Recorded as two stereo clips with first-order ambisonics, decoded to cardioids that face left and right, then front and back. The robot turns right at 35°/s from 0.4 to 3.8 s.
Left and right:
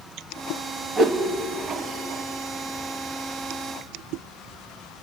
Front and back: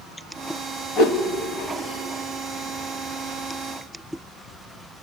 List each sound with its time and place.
1.0 s a whoosh: 30° right, 1.3 m; by 1.2 s 25° right, 1.3 m